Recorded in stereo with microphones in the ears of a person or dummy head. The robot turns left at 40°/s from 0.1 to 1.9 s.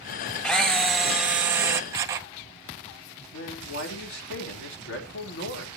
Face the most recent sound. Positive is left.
turn(degrees=75)  # may be behind; listen again after turning